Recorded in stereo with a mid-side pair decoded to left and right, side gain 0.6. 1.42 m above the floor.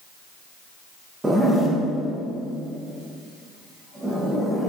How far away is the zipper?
About 0.7 m.